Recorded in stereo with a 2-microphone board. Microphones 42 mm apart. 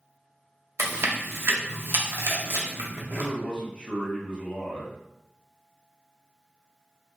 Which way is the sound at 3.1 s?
20° left (ahead or behind).